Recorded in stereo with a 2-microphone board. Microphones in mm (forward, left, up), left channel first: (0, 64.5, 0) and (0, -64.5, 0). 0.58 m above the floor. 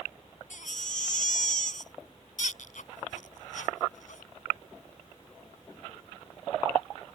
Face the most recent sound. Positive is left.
turn(degrees=80)